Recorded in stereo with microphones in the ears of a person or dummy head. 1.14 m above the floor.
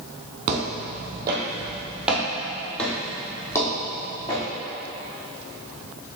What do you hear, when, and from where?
0.5 s footsteps: 30° right (ahead or behind), 1.2 m; by 4.4 s 20° left (ahead or behind), 2 m